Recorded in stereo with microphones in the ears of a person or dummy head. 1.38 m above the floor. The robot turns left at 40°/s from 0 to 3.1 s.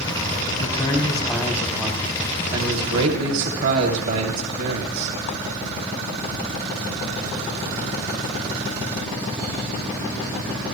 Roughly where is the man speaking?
Ahead left.